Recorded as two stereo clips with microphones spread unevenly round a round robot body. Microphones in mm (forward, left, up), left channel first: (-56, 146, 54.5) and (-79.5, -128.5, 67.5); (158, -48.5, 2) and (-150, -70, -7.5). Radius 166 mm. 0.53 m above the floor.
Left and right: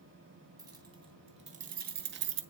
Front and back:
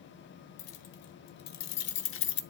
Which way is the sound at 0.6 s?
15° right.